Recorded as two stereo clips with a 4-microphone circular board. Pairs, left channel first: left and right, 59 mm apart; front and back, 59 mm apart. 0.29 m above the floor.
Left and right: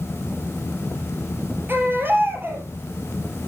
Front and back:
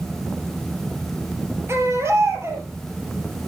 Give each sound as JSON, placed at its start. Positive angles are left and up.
{"t": 1.7, "sound": "a baby crying", "azimuth_deg": -140, "distance_m": 3.5}